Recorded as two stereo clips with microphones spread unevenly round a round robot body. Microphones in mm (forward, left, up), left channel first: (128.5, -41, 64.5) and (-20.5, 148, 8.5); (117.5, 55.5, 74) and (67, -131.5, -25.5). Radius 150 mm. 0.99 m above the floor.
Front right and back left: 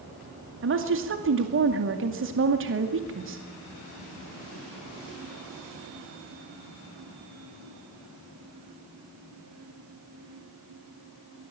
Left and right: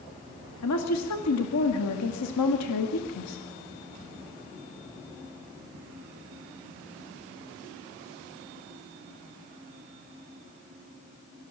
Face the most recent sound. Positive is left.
turn(degrees=100)